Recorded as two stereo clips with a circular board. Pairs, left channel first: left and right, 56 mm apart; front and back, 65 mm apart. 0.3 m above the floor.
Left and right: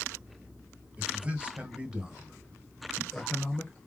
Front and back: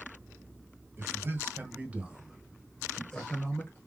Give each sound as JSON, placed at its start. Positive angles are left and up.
{"t": 1.0, "sound": "a man speaking", "azimuth_deg": -145, "distance_m": 1.6}